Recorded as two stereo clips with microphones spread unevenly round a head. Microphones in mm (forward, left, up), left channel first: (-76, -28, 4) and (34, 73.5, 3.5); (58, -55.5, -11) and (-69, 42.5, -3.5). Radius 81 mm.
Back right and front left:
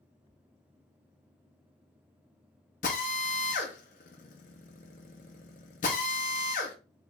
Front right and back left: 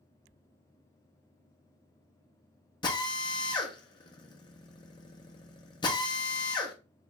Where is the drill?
100° right, 0.8 m.